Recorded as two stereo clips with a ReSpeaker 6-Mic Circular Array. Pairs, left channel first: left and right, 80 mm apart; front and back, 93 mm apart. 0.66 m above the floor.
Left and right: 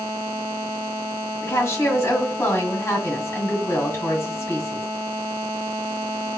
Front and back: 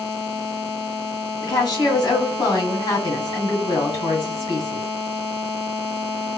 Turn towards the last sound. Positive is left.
turn(degrees=35)